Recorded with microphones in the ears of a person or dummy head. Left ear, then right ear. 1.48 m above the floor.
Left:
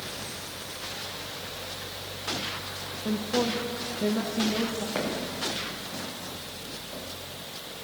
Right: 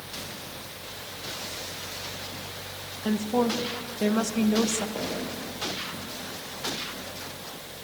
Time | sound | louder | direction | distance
3.0 | a woman speaking | right 2 dB | 55° right (ahead or behind) | 1.9 m
5.0 | footsteps | left 2 dB | 60° left (ahead or behind) | 9.5 m